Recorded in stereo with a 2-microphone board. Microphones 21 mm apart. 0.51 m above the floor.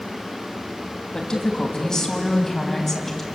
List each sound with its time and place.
1.1 s a woman speaking: 35° left (ahead or behind), 4.5 m; by 3.2 s 5° left (ahead or behind), 4 m